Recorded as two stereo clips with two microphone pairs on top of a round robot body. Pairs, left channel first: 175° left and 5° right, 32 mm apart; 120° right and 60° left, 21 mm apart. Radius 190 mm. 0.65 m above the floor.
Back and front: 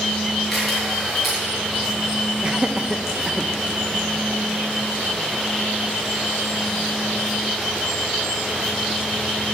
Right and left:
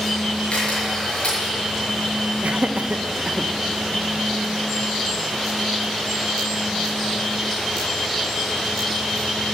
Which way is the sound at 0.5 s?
90° right.